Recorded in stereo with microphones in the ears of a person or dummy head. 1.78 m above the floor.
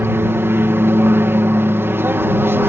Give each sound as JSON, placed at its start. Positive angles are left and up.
{"t": 0.0, "sound": "an aircraft", "side_deg": -15}